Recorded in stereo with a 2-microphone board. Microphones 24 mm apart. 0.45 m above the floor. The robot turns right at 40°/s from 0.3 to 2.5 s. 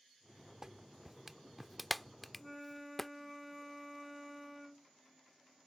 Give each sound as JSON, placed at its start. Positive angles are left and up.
{"t": 0.6, "sound": "a clap", "side_deg": -25}
{"t": 2.4, "sound": "a flute", "side_deg": 5}